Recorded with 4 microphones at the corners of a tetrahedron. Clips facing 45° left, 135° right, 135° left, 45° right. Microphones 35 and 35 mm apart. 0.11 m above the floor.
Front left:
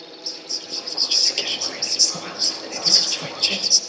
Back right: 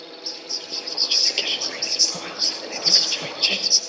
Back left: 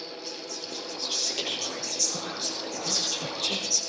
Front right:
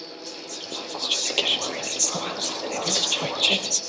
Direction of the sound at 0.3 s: 60° right.